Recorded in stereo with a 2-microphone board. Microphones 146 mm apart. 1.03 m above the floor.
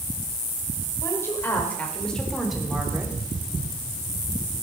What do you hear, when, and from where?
1.0 s a woman speaking: 20° left (ahead or behind), 5.5 m; by 3.1 s 15° right (ahead or behind), 3.5 m